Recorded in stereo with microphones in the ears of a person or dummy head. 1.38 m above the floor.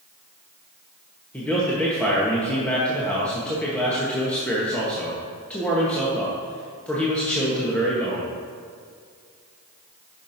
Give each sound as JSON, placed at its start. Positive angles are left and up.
{"t": 1.3, "sound": "a man speaking", "side_deg": 10, "distance_m": 1.0}